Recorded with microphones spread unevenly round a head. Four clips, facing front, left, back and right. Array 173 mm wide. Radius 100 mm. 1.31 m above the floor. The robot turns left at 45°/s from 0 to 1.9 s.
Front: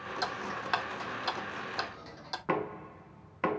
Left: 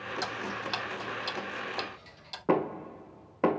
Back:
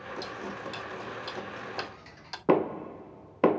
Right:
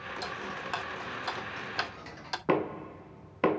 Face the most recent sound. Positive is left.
turn(degrees=170)